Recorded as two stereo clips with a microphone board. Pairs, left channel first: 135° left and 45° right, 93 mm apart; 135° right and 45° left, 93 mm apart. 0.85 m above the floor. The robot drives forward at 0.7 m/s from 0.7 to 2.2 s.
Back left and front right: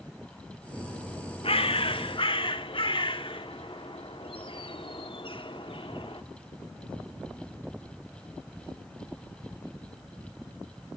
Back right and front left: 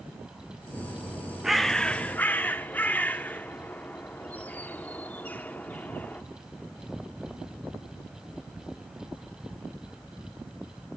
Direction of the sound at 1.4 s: 130° left.